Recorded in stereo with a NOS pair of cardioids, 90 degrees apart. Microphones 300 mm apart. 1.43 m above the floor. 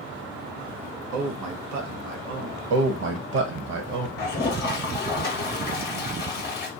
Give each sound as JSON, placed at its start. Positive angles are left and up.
{"t": 1.1, "sound": "a man speaking", "azimuth_deg": -70, "distance_m": 0.9}
{"t": 2.7, "sound": "a man speaking", "azimuth_deg": -60, "distance_m": 0.7}
{"t": 4.2, "sound": "a toilet flushing", "azimuth_deg": 35, "distance_m": 0.8}